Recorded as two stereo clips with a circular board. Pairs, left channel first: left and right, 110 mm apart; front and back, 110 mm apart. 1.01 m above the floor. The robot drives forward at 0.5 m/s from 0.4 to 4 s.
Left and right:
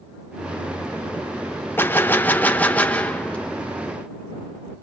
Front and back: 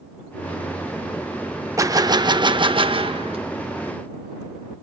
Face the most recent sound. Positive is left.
turn(degrees=170)